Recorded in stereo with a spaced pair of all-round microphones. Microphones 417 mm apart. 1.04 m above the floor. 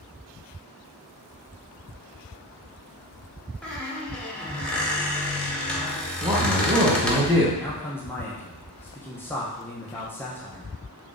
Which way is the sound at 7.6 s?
5° left (ahead or behind).